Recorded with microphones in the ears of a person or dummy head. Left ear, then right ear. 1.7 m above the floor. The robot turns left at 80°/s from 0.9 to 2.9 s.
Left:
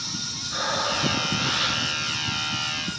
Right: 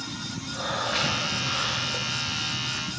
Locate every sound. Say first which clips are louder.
0.5 s breathing: left 2 dB; 115° left, 8.5 m; by 2.4 s straight ahead, 8.5 m